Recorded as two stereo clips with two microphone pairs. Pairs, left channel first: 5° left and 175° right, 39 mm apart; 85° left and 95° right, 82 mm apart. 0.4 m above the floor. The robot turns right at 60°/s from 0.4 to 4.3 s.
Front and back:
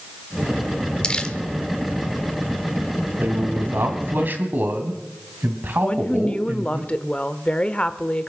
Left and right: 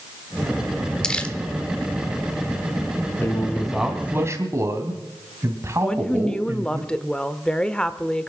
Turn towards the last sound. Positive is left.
turn(degrees=20)